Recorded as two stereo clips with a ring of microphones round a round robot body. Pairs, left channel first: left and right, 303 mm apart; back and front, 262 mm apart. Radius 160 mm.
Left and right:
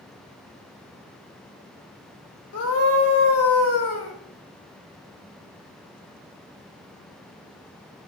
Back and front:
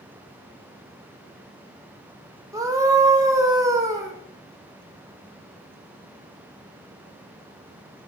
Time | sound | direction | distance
2.5 | a scream | 75° left | 1.9 m